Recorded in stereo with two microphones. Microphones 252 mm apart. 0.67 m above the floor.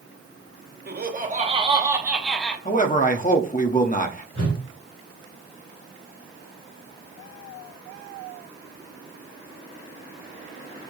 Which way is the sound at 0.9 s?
40° right (ahead or behind).